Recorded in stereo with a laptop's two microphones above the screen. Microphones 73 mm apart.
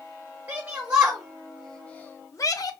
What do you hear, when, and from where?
0.5 s a shout: 35° right (ahead or behind), 1.1 m; by 2.7 s 65° left (ahead or behind), 0.7 m